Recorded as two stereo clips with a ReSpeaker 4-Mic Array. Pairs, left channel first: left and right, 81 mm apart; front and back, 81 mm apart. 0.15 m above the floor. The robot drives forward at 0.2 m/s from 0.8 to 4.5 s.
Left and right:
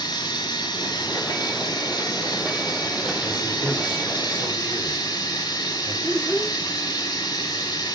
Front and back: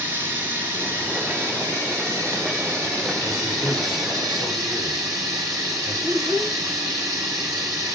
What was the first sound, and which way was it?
Running water, 115° left.